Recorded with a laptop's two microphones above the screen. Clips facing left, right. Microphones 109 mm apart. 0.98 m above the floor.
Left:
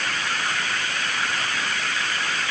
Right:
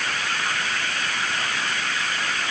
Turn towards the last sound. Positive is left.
No sound to turn to.